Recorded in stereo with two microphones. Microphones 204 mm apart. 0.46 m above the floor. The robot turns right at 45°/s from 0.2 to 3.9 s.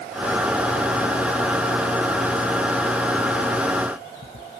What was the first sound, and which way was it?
Only background noise.